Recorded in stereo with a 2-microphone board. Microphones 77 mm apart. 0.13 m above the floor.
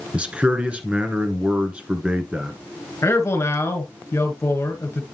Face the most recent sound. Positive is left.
turn(degrees=35)  # may be behind; listen again after turning